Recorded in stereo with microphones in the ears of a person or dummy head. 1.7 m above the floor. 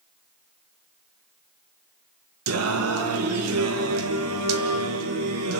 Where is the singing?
85° right, 2 m.